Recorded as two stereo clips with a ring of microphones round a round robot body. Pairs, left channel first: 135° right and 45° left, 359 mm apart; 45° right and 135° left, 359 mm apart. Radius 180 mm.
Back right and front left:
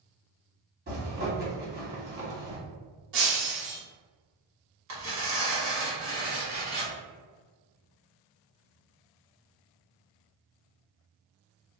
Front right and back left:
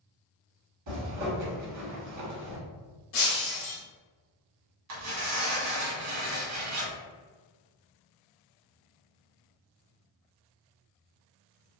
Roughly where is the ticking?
I don't hear ticking.